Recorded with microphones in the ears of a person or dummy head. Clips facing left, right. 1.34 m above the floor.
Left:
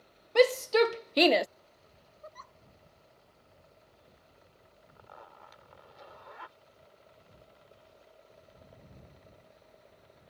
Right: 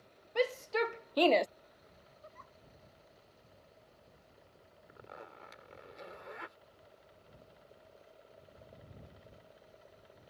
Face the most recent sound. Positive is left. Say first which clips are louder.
# right 2 dB
turn(degrees=-30)  # may be behind; listen again after turning